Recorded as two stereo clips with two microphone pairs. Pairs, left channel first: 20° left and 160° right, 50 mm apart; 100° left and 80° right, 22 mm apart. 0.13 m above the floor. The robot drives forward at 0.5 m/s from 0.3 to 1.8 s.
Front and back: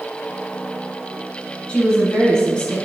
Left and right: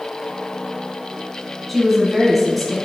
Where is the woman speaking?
20° left, 1.0 m; by 2.8 s 25° left, 1.0 m.